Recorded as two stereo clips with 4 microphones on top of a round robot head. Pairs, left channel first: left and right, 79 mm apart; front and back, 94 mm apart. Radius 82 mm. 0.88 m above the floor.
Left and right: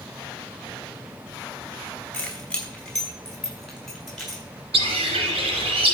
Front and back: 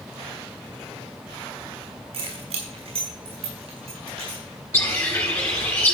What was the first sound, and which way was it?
Keys jangling, 170° left.